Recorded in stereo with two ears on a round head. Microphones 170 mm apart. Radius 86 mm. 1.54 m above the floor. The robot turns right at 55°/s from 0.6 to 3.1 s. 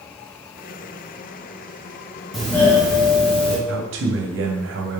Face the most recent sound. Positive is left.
turn(degrees=-80)